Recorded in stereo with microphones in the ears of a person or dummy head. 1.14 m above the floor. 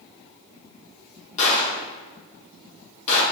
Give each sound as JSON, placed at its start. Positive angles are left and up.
{"t": 1.4, "sound": "a gunshot", "side_deg": 35, "distance_m": 1.0}